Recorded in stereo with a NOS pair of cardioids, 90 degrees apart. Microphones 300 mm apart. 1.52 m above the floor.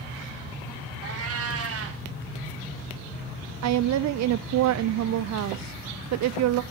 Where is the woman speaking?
60° right, 0.5 m.